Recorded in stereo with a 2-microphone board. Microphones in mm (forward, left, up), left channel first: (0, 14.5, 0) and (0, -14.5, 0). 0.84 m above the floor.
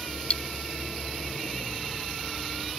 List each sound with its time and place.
0.3 s cutlery clinking: 40° left (ahead or behind)